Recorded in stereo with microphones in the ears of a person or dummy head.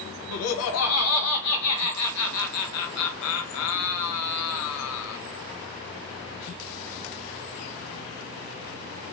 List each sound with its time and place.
0.3 s laughter: 85° left, 0.6 m